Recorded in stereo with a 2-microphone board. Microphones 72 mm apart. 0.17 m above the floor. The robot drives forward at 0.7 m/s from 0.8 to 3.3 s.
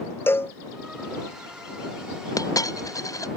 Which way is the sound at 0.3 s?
30° left (ahead or behind).